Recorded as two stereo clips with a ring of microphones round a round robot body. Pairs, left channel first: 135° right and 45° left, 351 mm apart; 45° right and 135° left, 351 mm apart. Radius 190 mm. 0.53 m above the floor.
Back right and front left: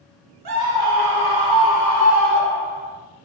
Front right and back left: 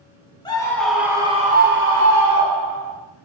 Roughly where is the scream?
Ahead left.